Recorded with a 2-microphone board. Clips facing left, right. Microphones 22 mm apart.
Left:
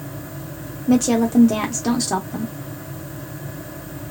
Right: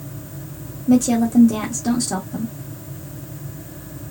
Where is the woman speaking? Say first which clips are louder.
Right 1 dB; 25° left (ahead or behind), 0.7 m.